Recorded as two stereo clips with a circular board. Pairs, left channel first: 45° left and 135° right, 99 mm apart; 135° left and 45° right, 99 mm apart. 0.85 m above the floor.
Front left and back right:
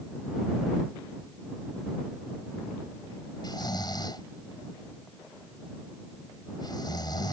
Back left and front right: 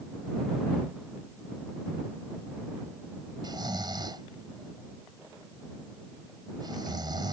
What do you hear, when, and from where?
3.4 s snoring: straight ahead